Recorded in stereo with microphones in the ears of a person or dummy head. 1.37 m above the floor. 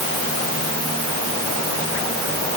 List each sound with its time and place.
Only background noise.